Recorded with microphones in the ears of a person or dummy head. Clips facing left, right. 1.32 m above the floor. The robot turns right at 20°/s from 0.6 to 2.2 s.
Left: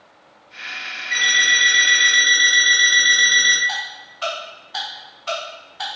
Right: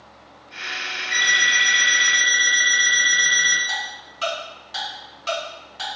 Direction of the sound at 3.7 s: 45° right (ahead or behind).